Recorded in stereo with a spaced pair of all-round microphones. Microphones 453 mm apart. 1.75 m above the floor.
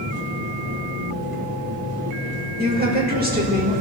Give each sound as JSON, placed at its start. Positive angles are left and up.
{"t": 0.0, "sound": "an engine running", "side_deg": -50, "distance_m": 4.0}
{"t": 2.6, "sound": "a woman speaking", "side_deg": -20, "distance_m": 6.0}